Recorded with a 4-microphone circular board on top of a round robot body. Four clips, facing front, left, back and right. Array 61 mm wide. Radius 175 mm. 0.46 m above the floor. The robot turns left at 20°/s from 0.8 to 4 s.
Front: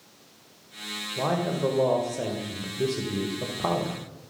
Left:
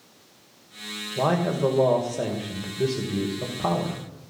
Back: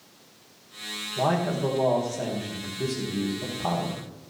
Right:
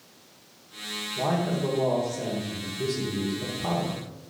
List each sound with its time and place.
1.2 s a man speaking: 90° left, 3 m; by 4.0 s 35° left, 3 m